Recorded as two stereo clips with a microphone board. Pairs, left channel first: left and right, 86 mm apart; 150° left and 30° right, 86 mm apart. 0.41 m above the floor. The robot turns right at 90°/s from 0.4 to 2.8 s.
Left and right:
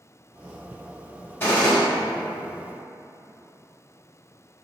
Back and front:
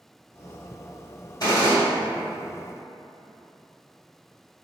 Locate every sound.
1.4 s a gunshot: 140° left, 1.9 m; by 1.8 s straight behind, 1.9 m